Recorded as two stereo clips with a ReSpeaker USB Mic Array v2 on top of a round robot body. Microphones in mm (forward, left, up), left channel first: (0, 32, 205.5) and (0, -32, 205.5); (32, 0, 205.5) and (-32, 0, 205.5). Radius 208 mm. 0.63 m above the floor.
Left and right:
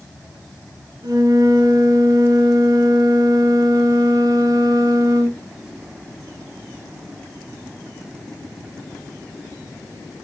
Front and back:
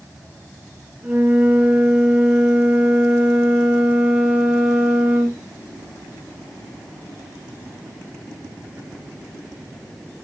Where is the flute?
125° right, 5 m.